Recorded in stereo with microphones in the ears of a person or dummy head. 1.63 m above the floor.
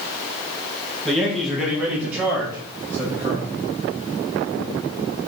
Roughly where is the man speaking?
Centre.